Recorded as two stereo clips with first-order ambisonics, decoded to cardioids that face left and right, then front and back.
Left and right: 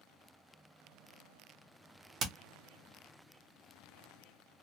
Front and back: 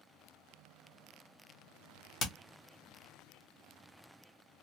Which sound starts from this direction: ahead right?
Hammering, at 2.2 s.